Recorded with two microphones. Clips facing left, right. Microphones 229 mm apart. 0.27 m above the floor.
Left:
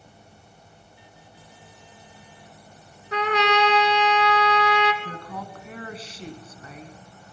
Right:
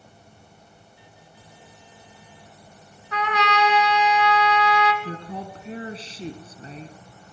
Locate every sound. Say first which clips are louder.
3.1 s a trumpet: left 3 dB; 35° left (ahead or behind), 3 m
5.0 s a woman speaking: right 3 dB; 30° right (ahead or behind), 2 m